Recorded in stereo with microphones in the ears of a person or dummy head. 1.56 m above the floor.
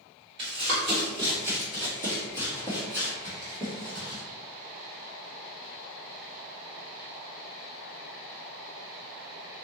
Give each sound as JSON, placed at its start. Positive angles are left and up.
{"t": 0.4, "sound": "running footsteps", "side_deg": -30, "distance_m": 1.8}